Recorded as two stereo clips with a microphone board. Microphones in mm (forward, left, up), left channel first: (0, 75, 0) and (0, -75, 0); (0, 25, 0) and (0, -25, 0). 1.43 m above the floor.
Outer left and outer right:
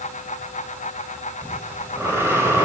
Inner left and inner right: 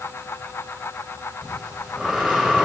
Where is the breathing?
15° right (ahead or behind), 3 m.